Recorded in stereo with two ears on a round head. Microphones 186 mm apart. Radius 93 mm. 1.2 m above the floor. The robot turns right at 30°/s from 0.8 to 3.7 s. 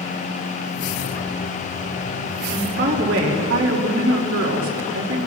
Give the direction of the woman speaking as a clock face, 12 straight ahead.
4 o'clock.